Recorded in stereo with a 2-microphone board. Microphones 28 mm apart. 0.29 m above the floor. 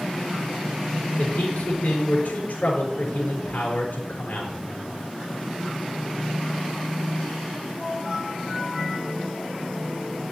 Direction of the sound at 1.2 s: 70° left (ahead or behind).